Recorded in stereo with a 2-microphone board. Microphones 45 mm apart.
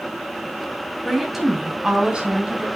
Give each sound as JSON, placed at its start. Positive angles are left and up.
{"t": 1.1, "sound": "a woman speaking", "side_deg": 5, "distance_m": 2.5}